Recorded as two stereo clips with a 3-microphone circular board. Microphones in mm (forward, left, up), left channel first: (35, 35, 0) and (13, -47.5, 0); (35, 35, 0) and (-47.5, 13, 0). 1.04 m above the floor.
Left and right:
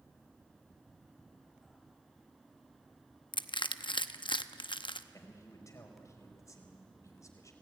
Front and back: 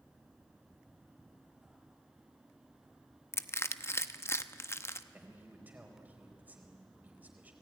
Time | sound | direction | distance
3.3 | crushing | 75° left | 0.8 m
5.1 | a man speaking | 125° left | 4 m